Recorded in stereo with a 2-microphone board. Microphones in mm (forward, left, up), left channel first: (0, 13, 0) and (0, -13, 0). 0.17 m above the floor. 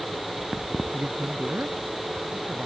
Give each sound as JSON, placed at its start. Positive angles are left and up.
{"t": 0.9, "sound": "a man speaking", "side_deg": -65}